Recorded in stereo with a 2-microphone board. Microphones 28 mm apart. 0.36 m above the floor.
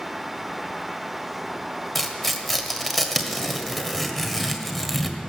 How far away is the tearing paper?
About 1.3 m.